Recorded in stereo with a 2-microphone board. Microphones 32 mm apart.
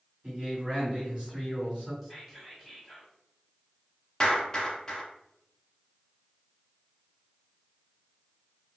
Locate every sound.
0.2 s a man speaking: 35° right (ahead or behind), 1.8 m
2.0 s whispering: centre (ahead or behind), 1.0 m
4.2 s a clap: 20° left (ahead or behind), 0.8 m